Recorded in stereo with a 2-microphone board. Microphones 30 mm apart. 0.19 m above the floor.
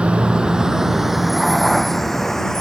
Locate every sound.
0.0 s a vehicle: 40° right (ahead or behind); by 2.6 s 15° left (ahead or behind)